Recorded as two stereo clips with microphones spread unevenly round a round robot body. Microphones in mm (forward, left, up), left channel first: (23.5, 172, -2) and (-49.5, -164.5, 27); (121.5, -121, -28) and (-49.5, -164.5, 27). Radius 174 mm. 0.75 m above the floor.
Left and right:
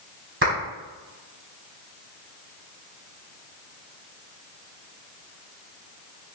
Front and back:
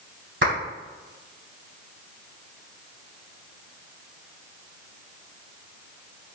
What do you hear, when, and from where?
0.4 s a clap: 160° right, 4.5 m